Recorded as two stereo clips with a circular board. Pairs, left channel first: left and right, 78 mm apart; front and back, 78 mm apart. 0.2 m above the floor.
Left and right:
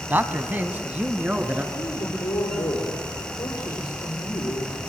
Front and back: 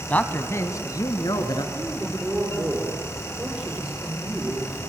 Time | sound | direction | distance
0.1 | a man speaking | 55° right | 1.4 m
1.7 | a man speaking | 115° left | 6.5 m